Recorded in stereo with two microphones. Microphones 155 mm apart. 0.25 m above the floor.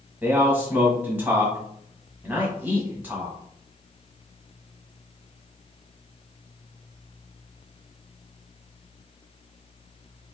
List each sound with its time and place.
0.2 s a man speaking: 10° right (ahead or behind), 1.4 m